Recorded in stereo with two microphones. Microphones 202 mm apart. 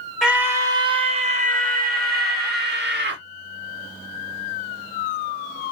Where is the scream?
5° right (ahead or behind), 0.9 m; by 3.2 s 60° right (ahead or behind), 1.8 m.